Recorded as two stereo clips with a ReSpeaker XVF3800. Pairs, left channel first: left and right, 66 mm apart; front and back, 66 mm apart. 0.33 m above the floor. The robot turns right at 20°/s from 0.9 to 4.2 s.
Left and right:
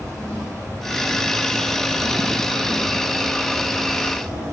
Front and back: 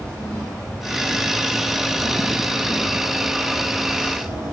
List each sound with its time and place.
0.0 s an insect: 45° left, 1.8 m; by 4.5 s 110° left, 1.8 m